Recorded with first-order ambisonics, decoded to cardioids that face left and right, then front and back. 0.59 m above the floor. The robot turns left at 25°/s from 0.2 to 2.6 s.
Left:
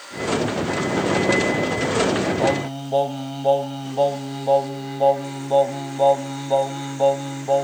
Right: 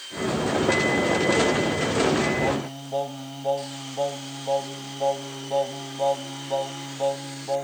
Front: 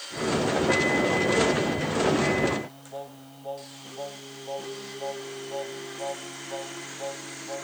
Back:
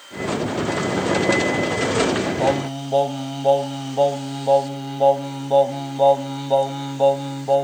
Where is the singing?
160° left; by 7.6 s 155° left.